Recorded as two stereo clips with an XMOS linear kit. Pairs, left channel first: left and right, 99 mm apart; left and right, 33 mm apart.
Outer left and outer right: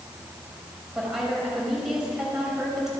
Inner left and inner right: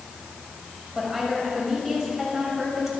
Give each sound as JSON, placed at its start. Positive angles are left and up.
{"t": 0.9, "sound": "a woman speaking", "side_deg": -5, "distance_m": 5.5}